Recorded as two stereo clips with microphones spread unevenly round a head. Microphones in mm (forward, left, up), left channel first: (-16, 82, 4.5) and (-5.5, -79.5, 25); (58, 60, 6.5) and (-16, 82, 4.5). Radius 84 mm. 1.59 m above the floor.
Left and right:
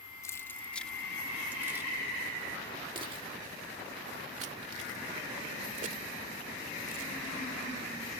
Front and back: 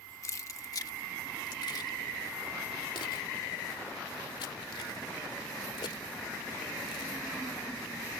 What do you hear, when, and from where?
0.2 s keys jangling: 20° left; by 7.4 s 50° right